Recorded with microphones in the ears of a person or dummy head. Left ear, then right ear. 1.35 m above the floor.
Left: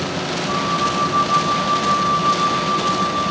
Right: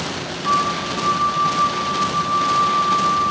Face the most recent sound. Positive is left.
turn(degrees=-45)  # may be behind; listen again after turning